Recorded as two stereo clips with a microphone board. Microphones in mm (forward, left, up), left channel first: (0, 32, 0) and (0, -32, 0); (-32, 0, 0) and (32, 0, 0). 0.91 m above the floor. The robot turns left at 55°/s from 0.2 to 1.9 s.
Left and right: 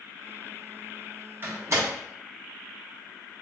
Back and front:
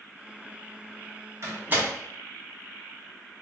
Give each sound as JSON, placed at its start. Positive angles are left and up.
{"t": 1.4, "sound": "a door slam", "azimuth_deg": -35, "distance_m": 0.9}